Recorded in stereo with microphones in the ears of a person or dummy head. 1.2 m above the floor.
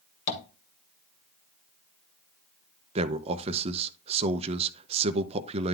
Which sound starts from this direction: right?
A man speaking, at 3.0 s.